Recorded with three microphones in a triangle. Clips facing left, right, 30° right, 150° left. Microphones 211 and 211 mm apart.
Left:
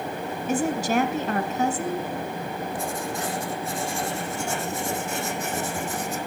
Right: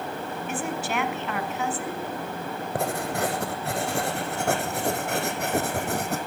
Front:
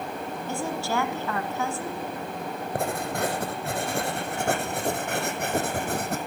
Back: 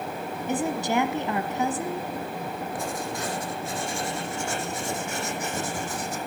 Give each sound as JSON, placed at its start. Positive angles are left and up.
{"t": 0.5, "sound": "a woman speaking", "azimuth_deg": 90, "distance_m": 1.3}
{"t": 2.8, "sound": "writing", "azimuth_deg": -60, "distance_m": 1.9}